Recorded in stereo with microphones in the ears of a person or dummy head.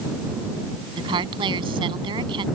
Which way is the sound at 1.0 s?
25° right (ahead or behind).